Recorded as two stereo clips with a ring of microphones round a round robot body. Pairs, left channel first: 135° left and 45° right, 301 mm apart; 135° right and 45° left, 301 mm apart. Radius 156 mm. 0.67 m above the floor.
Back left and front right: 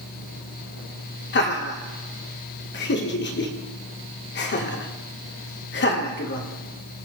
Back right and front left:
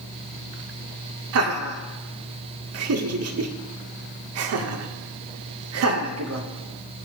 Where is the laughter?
80° left, 1.7 m.